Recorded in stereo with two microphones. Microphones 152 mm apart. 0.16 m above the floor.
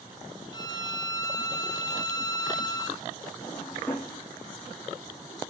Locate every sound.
0.5 s a violin: 25° left (ahead or behind), 1.8 m
3.4 s a drawer: 15° left (ahead or behind), 5.5 m